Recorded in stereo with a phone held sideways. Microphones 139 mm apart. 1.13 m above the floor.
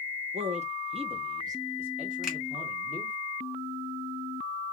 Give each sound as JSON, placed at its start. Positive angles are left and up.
{"t": 0.3, "sound": "a man speaking", "side_deg": -50, "distance_m": 0.7}
{"t": 2.2, "sound": "a finger snap", "side_deg": -5, "distance_m": 1.4}